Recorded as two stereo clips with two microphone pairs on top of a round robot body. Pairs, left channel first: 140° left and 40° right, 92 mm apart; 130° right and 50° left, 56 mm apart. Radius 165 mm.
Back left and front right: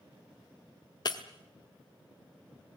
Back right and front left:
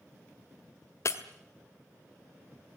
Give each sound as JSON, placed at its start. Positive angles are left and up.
{"t": 1.1, "sound": "breaking glass", "azimuth_deg": -175, "distance_m": 1.4}